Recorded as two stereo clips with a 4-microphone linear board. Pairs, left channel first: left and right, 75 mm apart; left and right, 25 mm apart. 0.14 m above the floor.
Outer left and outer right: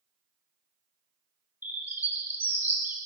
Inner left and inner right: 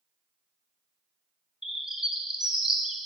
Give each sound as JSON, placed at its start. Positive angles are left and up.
{"t": 1.6, "sound": "a bird", "side_deg": -25, "distance_m": 0.9}